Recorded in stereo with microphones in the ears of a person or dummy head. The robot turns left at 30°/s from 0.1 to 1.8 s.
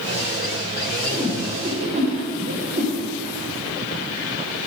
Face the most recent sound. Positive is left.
turn(degrees=-40)  # may be behind; listen again after turning